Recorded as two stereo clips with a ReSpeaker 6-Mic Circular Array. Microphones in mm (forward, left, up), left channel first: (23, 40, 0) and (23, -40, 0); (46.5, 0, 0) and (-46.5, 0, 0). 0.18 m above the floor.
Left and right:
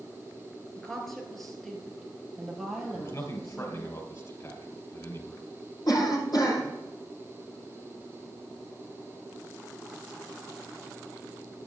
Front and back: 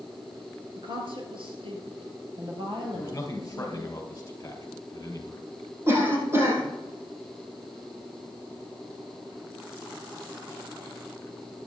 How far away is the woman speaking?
About 2.5 m.